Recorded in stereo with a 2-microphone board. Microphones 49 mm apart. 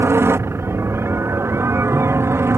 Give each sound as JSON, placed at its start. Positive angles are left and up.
{"t": 0.0, "sound": "a helicopter", "side_deg": -60}